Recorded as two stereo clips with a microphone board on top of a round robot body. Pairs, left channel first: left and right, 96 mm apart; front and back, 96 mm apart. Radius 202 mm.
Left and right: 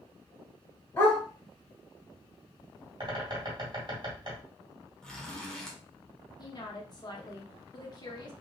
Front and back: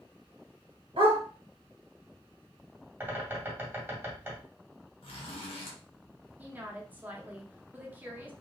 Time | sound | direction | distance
1.0 | a dog barking | 155° left | 1.8 m
3.0 | a bird | 115° right | 2 m
5.0 | a zipper | 10° left | 1.3 m
6.4 | a woman speaking | 115° left | 1.4 m